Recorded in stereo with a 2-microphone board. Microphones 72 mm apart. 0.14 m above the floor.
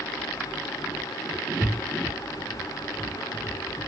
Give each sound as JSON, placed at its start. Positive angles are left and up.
{"t": 1.6, "sound": "a thud", "side_deg": 20, "distance_m": 4.5}